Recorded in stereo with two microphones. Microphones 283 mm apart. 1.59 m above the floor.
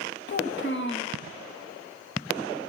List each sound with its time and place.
0.3 s a child speaking: 40° left (ahead or behind), 1.3 m